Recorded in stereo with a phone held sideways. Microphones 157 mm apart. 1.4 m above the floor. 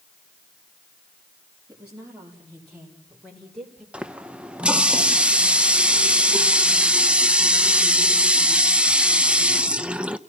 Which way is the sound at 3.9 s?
5° right (ahead or behind).